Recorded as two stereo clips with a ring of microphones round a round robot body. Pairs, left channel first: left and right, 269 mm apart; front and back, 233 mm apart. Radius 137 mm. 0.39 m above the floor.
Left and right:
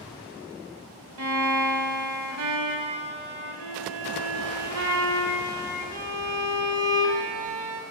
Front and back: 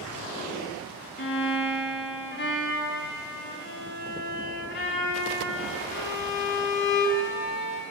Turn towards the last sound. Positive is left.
turn(degrees=-55)